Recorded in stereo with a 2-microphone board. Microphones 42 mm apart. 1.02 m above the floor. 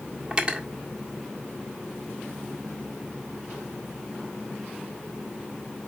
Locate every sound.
0.3 s cutlery clinking: 25° right (ahead or behind), 1.7 m